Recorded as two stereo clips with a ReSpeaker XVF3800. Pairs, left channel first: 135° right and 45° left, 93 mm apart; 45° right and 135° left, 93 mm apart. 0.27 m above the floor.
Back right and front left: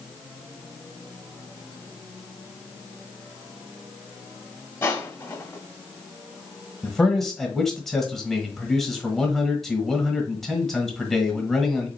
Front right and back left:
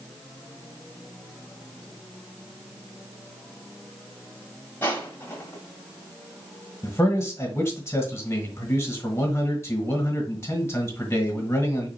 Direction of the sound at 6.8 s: 55° right.